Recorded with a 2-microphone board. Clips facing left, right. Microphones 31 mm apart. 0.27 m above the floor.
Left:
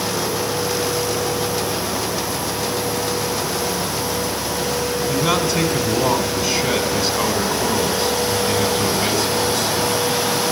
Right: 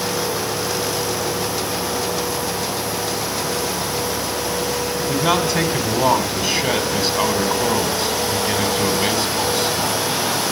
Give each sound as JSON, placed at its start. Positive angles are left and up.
{"t": 5.0, "sound": "a man speaking", "side_deg": -35, "distance_m": 2.5}